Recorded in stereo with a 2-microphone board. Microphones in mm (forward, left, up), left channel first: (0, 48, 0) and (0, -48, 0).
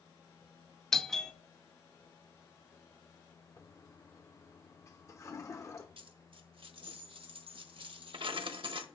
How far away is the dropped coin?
About 1.2 m.